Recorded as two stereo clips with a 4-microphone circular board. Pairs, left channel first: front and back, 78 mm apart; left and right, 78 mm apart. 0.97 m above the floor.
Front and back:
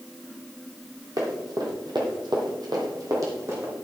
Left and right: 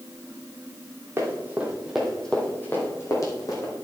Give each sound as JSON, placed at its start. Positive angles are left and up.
{"t": 1.2, "sound": "running footsteps", "azimuth_deg": -150, "distance_m": 2.5}